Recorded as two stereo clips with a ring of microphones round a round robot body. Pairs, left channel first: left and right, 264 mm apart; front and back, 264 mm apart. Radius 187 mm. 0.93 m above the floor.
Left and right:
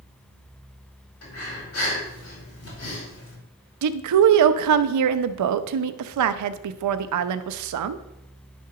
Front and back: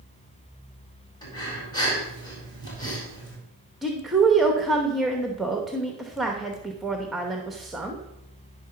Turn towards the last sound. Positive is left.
turn(degrees=-90)